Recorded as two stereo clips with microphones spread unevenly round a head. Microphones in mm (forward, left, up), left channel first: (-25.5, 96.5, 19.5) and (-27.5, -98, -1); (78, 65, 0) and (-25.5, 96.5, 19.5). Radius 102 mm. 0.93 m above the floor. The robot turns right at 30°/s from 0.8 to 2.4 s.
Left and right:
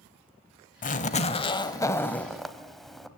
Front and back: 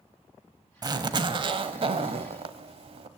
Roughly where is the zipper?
Behind left.